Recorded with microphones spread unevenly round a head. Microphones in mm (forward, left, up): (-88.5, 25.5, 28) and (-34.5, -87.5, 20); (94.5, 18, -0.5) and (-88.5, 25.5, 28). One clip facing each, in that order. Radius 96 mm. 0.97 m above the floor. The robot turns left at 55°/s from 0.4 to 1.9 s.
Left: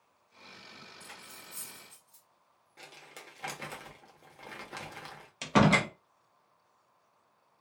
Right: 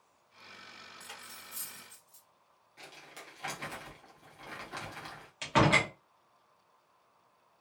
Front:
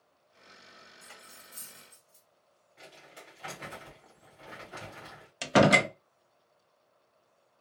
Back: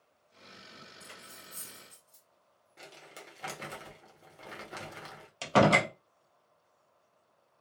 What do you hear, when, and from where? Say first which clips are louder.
1.0 s cutlery clinking: even, back 3 dB; 130° right, 2 m; by 2.2 s straight behind, 2 m
2.8 s crumpling: even, back 1 dB; 155° left, 1.3 m
5.4 s a door slam: left 2 dB, front 2 dB; 60° left, 0.5 m